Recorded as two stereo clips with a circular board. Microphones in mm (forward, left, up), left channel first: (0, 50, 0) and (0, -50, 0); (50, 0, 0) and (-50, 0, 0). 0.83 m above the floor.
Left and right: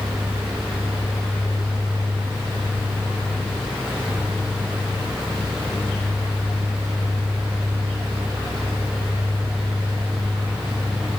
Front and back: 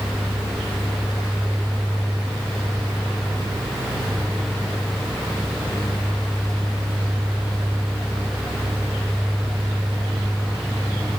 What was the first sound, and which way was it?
Only background noise.